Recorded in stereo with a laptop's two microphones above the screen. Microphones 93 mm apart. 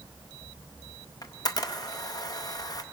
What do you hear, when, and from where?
1.2 s a camera shutter: 40° left (ahead or behind), 0.7 m